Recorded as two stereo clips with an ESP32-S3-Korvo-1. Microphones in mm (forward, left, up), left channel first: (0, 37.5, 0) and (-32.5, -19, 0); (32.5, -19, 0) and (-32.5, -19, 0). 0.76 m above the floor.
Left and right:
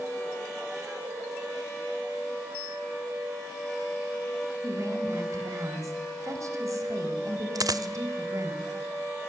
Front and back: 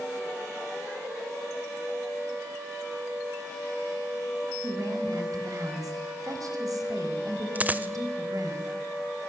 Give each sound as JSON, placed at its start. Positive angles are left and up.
{"t": 4.6, "sound": "a woman speaking", "azimuth_deg": -155, "distance_m": 4.0}
{"t": 7.5, "sound": "a dropped coin", "azimuth_deg": -115, "distance_m": 0.9}